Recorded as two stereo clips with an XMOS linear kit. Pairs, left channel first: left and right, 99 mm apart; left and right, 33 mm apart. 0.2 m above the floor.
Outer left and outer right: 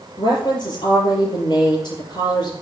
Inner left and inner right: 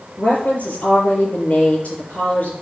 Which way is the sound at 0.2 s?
50° left (ahead or behind).